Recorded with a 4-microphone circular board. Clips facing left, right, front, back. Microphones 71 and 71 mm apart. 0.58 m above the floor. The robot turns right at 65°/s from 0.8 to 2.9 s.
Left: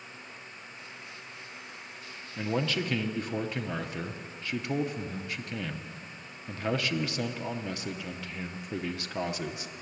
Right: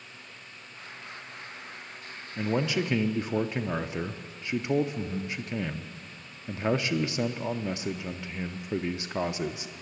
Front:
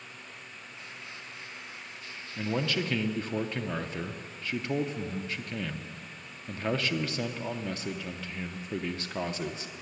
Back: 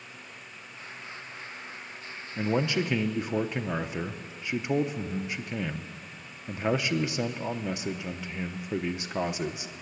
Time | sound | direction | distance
2.4 | a man speaking | 165° right | 0.6 m